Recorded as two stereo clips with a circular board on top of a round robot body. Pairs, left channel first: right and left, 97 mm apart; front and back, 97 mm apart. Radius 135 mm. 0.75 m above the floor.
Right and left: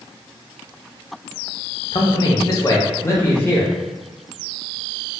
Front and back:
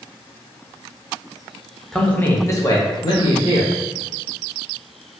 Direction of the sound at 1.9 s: 85° right.